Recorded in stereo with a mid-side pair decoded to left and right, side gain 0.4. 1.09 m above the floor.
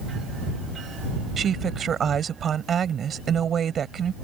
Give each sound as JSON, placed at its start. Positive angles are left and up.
{"t": 1.4, "sound": "a woman speaking", "azimuth_deg": -60}